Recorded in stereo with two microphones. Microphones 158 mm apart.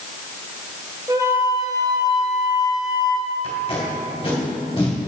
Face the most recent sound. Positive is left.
turn(degrees=35)  # may be behind; listen again after turning